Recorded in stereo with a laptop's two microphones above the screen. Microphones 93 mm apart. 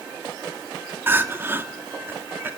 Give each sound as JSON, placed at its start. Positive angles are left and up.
{"t": 1.1, "sound": "crying", "side_deg": -25, "distance_m": 2.0}